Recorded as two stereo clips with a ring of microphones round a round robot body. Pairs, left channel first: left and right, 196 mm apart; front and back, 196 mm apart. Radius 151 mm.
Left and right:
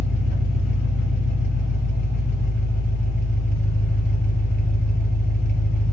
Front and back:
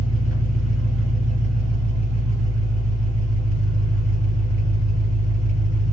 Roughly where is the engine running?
Behind.